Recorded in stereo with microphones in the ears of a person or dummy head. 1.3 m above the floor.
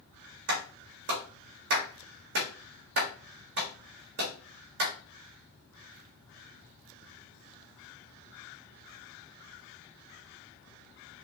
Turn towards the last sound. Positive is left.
turn(degrees=-55)  # may be behind; listen again after turning